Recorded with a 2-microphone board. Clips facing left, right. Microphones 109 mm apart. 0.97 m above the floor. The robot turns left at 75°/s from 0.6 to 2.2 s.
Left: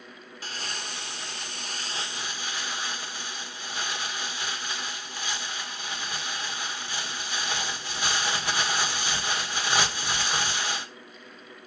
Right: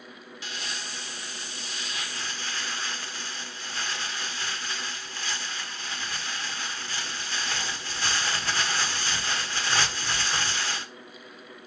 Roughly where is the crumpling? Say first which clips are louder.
Left 1 dB; behind left.